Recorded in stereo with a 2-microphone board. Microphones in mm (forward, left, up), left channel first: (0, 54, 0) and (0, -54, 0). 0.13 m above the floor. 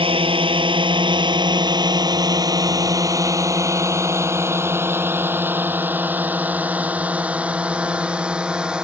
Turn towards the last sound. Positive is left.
turn(degrees=-10)  # may be behind; listen again after turning